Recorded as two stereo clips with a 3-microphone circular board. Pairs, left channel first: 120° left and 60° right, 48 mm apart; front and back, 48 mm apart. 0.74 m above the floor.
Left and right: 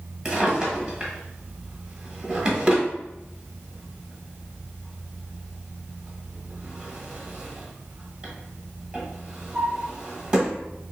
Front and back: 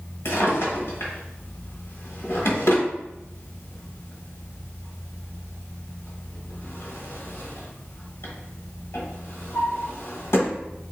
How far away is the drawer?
About 1.2 m.